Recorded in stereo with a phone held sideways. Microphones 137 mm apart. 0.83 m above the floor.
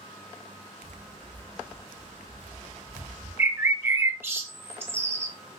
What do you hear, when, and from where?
0.8 s footsteps: 20° right (ahead or behind), 2.0 m; by 3.3 s 35° left (ahead or behind), 1.4 m
3.4 s a bird: 15° right (ahead or behind), 0.6 m